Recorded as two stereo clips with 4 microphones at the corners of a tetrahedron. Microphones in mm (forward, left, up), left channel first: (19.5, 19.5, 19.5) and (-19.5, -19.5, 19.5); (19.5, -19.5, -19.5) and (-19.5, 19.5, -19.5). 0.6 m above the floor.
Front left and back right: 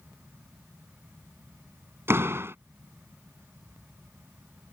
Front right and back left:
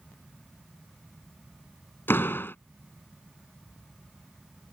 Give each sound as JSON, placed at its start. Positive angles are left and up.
{"t": 2.1, "sound": "a door slam", "azimuth_deg": -95}